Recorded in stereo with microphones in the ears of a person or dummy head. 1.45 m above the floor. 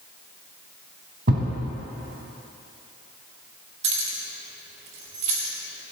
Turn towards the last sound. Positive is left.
turn(degrees=-40)  # may be behind; listen again after turning